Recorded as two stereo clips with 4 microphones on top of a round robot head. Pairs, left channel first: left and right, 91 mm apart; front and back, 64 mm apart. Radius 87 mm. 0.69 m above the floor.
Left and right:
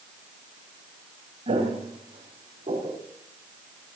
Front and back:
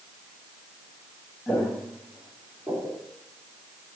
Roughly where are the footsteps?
Right.